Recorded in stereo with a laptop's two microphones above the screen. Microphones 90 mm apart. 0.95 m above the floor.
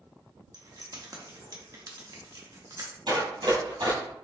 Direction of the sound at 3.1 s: 60° right (ahead or behind).